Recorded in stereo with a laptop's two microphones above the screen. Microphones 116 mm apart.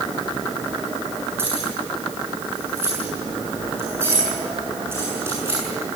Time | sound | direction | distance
1.4 | keys jangling | 20° right (ahead or behind) | 7.5 m